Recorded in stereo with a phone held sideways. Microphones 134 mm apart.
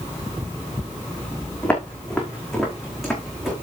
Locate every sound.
1.6 s footsteps: 10° left (ahead or behind), 4.5 m; by 3.5 s 5° right (ahead or behind), 6 m